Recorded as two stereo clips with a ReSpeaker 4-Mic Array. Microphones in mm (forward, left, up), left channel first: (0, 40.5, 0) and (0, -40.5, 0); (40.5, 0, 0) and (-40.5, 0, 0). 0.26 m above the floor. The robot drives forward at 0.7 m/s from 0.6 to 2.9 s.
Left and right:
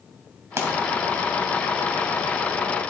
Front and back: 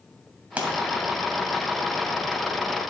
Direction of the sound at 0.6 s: 120° right.